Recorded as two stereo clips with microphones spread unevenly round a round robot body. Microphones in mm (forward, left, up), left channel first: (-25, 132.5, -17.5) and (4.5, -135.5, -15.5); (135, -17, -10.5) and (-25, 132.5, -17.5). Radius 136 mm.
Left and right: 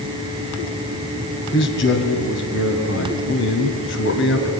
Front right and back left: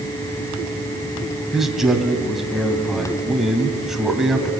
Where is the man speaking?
50° left, 2.5 m.